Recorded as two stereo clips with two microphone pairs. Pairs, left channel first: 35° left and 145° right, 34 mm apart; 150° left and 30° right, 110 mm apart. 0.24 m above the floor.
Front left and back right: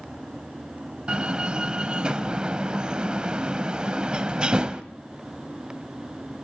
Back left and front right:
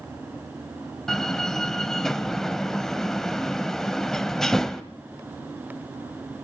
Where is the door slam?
130° right, 1.0 m.